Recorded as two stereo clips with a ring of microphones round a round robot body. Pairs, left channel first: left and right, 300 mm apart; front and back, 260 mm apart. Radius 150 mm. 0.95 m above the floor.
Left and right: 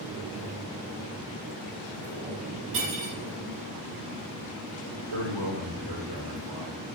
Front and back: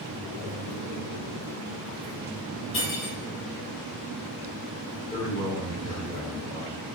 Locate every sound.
2.7 s cutlery clinking: 55° right, 2.5 m
5.1 s a man speaking: 75° right, 2.5 m